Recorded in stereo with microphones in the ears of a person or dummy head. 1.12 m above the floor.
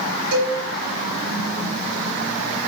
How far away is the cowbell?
About 2.5 m.